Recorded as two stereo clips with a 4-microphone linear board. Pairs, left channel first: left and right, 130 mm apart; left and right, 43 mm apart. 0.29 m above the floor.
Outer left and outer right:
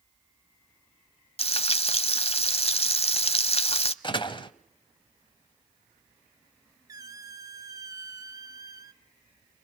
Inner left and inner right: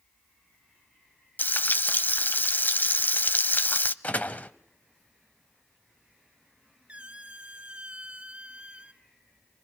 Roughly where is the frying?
Left.